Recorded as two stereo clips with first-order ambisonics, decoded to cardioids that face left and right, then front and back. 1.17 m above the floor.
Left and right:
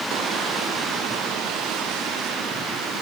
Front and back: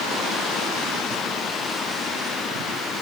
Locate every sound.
Only background noise.